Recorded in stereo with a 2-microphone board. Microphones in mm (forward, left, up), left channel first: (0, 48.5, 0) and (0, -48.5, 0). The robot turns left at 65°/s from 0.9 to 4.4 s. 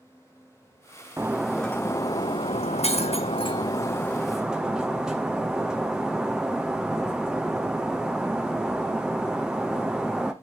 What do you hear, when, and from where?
1.2 s breaking glass: 155° right, 0.9 m; by 10.3 s 5° right, 0.9 m